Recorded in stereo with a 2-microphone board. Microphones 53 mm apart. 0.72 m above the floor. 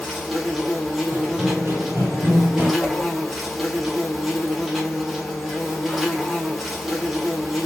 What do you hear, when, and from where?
0.0 s an insect: 5° right (ahead or behind), 1.3 m
1.1 s running footsteps: 50° right (ahead or behind), 1.5 m
2.8 s a whoosh: 30° right (ahead or behind), 1.3 m